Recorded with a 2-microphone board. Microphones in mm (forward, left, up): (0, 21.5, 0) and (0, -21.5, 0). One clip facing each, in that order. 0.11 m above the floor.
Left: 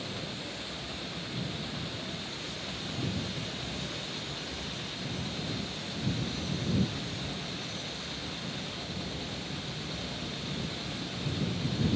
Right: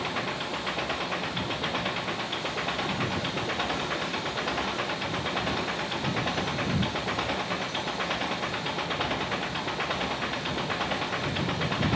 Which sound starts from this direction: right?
An engine running, at 0.0 s.